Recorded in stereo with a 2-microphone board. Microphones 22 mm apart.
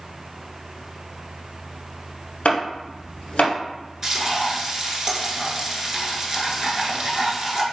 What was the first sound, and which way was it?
Chopping, 80° left.